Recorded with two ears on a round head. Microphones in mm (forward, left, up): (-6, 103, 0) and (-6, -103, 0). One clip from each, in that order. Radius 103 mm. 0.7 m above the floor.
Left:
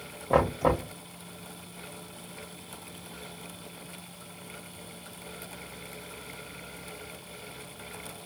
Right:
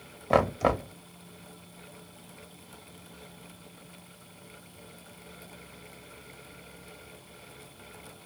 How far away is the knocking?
About 0.9 m.